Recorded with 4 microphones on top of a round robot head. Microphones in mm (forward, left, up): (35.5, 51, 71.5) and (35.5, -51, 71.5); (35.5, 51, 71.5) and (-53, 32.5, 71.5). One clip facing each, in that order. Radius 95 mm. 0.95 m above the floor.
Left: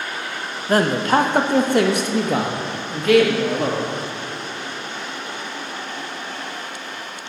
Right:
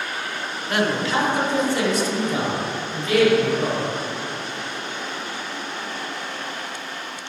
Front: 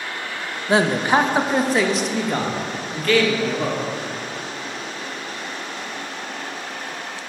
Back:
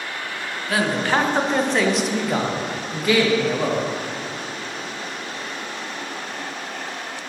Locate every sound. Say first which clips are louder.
0.7 s a man speaking: left 5 dB, front 4 dB; 60° left, 0.9 m; by 3.9 s 120° left, 2 m